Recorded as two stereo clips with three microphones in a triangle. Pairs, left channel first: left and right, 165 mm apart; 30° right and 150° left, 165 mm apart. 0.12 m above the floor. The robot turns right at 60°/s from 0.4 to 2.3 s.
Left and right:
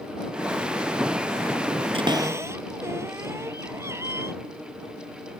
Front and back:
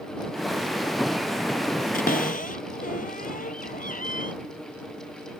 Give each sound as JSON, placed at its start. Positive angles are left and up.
{"t": 1.9, "sound": "a cupboard door", "azimuth_deg": -40}